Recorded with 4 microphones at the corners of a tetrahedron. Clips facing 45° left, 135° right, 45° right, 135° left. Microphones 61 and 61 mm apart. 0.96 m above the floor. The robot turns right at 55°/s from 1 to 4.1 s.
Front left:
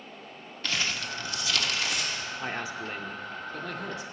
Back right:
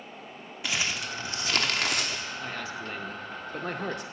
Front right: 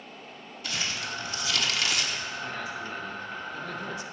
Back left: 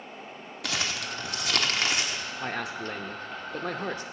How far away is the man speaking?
About 0.7 m.